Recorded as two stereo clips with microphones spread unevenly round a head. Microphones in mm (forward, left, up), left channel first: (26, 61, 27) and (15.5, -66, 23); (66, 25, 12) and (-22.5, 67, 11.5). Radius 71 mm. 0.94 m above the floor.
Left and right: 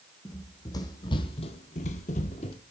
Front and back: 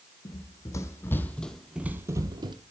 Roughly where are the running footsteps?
Ahead.